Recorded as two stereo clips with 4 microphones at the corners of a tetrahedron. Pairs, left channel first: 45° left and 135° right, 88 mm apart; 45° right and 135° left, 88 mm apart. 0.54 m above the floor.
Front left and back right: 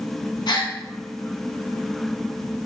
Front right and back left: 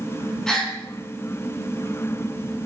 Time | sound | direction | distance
0.5 | a gasp | 40° left | 0.8 m